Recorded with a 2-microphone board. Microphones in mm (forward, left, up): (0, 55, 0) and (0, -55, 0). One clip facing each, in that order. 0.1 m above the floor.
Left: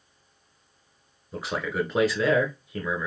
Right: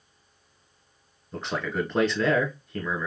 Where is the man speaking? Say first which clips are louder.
Left 1 dB; 5° left (ahead or behind), 1.2 m.